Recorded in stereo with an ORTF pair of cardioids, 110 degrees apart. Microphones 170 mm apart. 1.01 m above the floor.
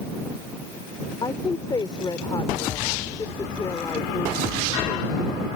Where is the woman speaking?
25° left.